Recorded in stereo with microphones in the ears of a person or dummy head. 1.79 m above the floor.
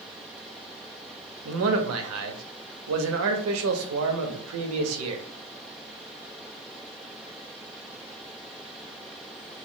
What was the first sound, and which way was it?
A man speaking, 80° right.